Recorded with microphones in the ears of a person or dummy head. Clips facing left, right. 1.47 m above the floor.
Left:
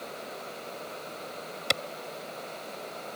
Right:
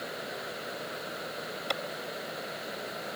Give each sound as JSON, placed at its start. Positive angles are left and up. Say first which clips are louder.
{"t": 1.7, "sound": "a clap", "louder": "left 2 dB", "side_deg": 35}